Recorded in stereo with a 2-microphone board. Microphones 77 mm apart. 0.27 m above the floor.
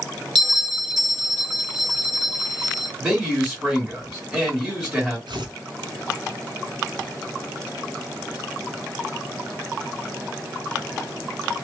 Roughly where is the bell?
Centre.